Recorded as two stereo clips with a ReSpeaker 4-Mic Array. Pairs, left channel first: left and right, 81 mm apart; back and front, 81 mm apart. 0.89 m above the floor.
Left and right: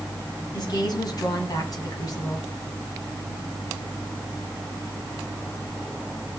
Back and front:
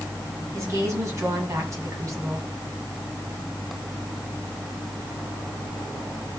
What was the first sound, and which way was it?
A woman speaking, 55° left.